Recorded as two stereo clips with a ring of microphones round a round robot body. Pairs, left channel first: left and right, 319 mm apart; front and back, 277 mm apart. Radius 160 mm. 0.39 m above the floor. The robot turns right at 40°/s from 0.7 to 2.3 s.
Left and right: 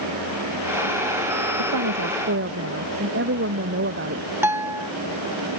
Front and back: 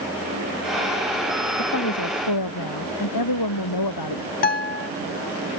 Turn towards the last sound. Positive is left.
turn(degrees=-15)